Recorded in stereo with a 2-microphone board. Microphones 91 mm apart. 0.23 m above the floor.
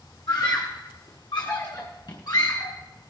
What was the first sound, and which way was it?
A scream, 50° left (ahead or behind).